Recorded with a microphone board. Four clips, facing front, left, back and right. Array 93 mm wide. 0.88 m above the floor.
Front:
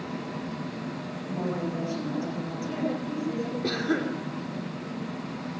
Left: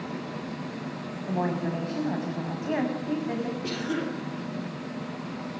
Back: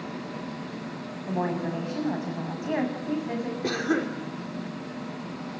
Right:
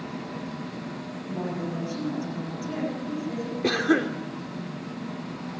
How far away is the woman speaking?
About 7.5 m.